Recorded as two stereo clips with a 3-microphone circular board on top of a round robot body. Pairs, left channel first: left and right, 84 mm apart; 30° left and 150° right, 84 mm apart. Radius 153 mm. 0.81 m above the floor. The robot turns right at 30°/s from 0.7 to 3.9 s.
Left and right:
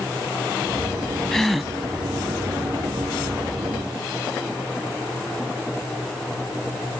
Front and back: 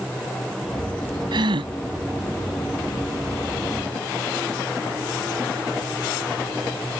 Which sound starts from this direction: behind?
A gasp, at 1.3 s.